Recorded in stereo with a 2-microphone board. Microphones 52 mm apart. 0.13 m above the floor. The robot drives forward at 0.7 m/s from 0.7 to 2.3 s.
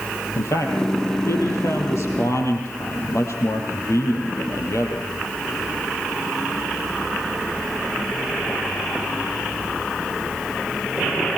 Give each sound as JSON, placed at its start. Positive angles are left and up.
{"t": 0.3, "sound": "a man speaking", "side_deg": 70, "distance_m": 5.0}